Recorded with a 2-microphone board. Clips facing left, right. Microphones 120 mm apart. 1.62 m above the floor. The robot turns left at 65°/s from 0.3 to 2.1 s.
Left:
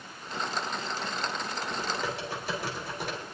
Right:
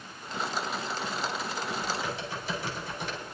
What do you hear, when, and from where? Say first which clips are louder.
1.7 s typing on a keyboard: left 1 dB; 80° left, 3.5 m; by 3.2 s 55° left (ahead or behind), 3.5 m